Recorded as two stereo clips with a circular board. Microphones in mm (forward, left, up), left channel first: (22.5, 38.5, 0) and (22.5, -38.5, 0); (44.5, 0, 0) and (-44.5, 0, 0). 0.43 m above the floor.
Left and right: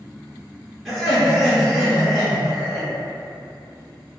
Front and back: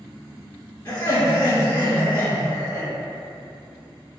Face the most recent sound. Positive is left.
turn(degrees=5)